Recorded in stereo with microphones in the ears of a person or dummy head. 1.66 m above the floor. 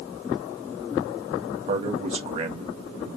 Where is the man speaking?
30° right (ahead or behind), 1.6 m.